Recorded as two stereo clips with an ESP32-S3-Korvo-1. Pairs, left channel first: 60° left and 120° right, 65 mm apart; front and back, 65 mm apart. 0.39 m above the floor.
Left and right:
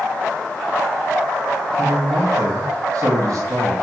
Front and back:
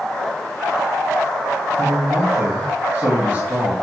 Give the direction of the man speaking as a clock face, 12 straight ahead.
5 o'clock.